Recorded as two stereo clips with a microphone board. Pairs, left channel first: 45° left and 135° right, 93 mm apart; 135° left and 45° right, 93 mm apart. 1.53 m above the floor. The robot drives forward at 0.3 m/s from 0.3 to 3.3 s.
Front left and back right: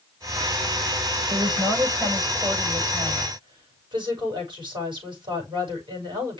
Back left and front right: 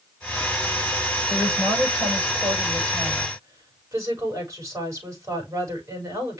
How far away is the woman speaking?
About 7.5 m.